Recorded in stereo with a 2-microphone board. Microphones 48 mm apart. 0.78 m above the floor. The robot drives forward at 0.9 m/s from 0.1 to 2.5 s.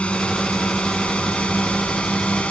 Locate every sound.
0.0 s a drone: 30° left (ahead or behind)